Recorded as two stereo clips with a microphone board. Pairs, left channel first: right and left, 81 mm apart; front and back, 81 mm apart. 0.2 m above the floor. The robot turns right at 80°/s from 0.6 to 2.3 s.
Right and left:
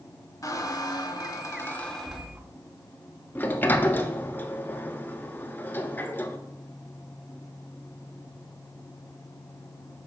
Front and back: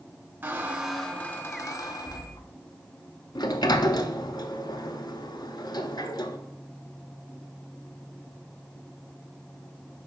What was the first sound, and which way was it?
A squeak, 120° right.